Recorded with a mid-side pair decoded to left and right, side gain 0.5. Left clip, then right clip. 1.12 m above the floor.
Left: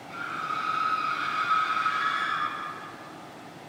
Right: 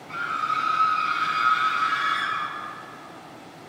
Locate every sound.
0.1 s a scream: 60° right, 6 m; by 2.5 s 75° right, 7.5 m